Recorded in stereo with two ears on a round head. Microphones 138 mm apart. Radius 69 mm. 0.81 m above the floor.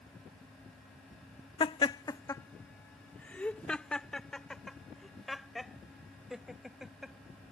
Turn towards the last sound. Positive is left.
turn(degrees=-5)  # may be behind; listen again after turning